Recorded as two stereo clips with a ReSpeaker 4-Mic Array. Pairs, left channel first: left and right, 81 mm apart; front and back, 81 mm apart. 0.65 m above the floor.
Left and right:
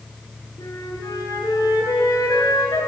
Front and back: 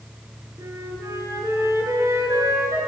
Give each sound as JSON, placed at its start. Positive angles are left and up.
{"t": 0.6, "sound": "a flute", "azimuth_deg": 130, "distance_m": 7.0}